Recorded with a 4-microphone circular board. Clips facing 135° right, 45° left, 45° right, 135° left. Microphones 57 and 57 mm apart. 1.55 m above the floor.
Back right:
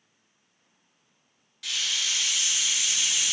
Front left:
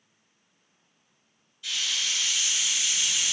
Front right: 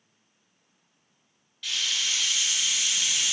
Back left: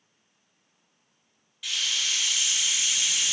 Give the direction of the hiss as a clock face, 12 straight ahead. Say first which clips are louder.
Even, even; 5 o'clock.